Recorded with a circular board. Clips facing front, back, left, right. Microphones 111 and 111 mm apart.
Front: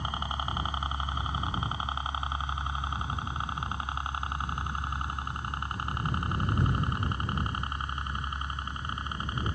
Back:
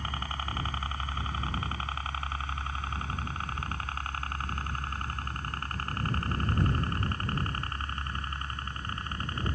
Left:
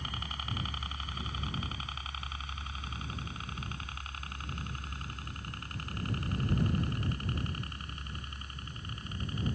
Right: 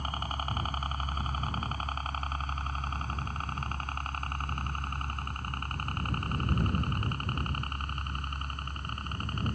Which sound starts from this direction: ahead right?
A helicopter, at 0.0 s.